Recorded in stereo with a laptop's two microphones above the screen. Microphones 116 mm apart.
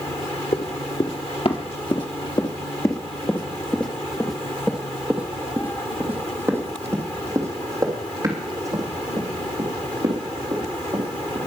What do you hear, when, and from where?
0.5 s running footsteps: 60° left (ahead or behind), 2 m; by 11.5 s 40° right (ahead or behind), 5 m